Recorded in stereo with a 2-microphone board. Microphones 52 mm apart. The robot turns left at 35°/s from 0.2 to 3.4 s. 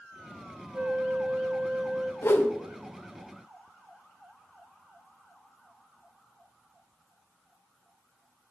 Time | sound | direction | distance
0.7 | a flute | 90° right | 0.7 m
2.2 | a whoosh | 55° left (ahead or behind) | 1.0 m